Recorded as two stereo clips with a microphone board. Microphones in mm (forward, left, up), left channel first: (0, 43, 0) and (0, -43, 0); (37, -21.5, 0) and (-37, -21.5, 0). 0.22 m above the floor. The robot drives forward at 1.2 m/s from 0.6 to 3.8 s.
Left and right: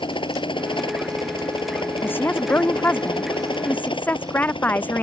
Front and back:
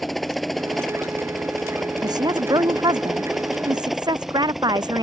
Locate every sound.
0.0 s a helicopter: 90° left
2.0 s a woman speaking: 155° left; by 5.0 s 160° left